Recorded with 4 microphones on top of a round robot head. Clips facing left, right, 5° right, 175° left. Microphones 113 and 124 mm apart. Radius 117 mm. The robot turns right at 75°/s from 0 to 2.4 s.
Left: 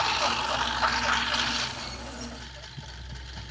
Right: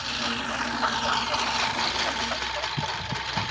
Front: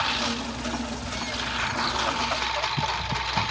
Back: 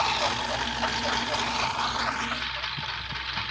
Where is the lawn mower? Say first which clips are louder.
Left 4 dB, back 2 dB; 120° left; by 3.5 s 60° right.